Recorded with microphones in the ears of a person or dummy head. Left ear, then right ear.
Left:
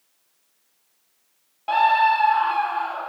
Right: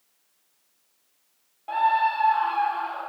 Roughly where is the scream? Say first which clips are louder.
Left 5 dB; left.